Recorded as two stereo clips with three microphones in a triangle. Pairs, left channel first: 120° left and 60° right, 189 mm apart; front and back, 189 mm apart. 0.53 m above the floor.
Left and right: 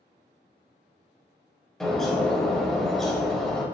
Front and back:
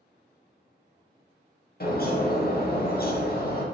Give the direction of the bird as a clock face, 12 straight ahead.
11 o'clock.